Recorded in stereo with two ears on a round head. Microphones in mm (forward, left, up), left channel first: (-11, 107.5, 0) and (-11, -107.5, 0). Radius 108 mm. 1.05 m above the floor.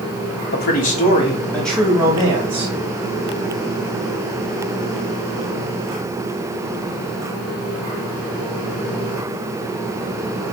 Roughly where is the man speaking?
Left.